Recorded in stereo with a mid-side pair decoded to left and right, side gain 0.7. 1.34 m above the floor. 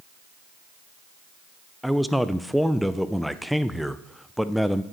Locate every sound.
1.8 s a man speaking: straight ahead, 0.5 m